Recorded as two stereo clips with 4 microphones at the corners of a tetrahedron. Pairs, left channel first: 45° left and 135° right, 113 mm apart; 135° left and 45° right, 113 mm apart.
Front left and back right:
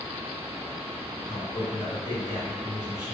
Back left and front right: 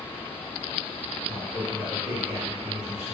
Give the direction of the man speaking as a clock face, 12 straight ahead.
11 o'clock.